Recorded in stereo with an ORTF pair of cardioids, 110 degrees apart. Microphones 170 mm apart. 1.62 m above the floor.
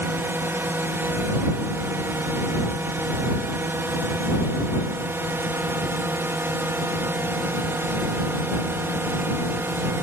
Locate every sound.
0.0 s a drone: 15° right